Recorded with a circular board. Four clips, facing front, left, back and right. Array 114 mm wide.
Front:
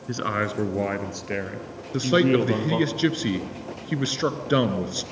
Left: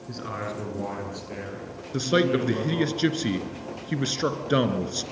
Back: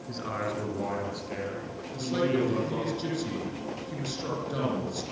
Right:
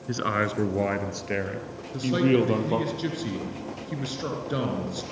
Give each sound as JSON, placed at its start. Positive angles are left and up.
{"t": 0.1, "sound": "a man speaking", "azimuth_deg": -45, "distance_m": 2.0}
{"t": 1.9, "sound": "a man speaking", "azimuth_deg": 35, "distance_m": 2.5}